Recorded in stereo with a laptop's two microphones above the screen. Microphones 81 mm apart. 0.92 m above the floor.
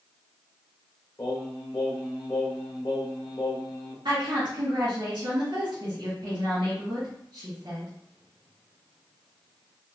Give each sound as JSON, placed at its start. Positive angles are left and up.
{"t": 1.2, "sound": "singing", "side_deg": 60, "distance_m": 1.6}
{"t": 4.0, "sound": "a woman speaking", "side_deg": -65, "distance_m": 1.7}